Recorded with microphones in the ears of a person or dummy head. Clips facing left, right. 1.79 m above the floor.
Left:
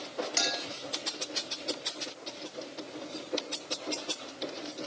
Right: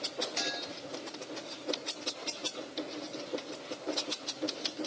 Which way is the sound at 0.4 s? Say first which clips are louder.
Left 3 dB; 60° left (ahead or behind).